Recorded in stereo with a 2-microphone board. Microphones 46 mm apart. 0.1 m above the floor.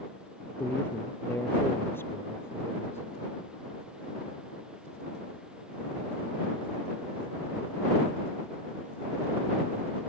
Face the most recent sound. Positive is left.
turn(degrees=60)  # may be behind; listen again after turning